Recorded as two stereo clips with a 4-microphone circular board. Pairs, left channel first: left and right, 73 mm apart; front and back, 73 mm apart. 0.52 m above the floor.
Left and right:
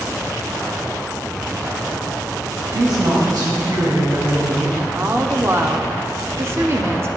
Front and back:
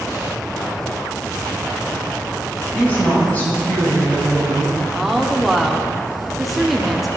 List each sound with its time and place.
2.7 s a woman speaking: 65° right, 4 m
4.8 s a woman speaking: 90° right, 0.9 m